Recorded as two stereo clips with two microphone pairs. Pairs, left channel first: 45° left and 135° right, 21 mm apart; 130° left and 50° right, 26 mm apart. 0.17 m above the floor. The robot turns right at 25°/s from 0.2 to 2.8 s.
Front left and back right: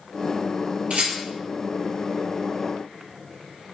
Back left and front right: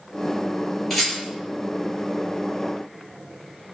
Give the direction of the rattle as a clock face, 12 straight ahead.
5 o'clock.